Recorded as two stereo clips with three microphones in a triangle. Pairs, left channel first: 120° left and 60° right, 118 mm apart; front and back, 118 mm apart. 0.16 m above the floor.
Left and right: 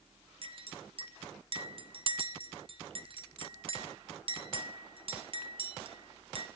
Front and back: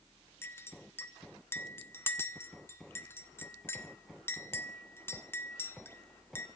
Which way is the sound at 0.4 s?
65° right.